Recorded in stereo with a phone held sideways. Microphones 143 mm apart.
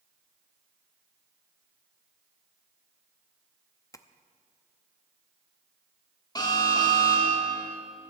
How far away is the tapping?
About 0.7 m.